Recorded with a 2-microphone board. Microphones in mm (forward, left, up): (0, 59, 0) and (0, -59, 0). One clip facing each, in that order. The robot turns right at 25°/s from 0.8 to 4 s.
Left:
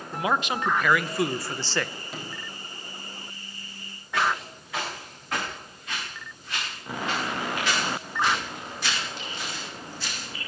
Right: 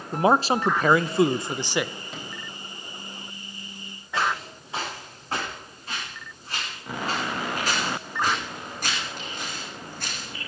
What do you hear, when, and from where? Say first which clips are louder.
0.1 s a man speaking: right 6 dB; 35° right (ahead or behind), 0.6 m; by 1.9 s 10° right (ahead or behind), 0.6 m
2.1 s a sliding door: even; centre (ahead or behind), 3.5 m; by 2.5 s 5° right (ahead or behind), 3.5 m
4.1 s footsteps: even; 25° right (ahead or behind), 9 m; by 10.5 s 60° right (ahead or behind), 6 m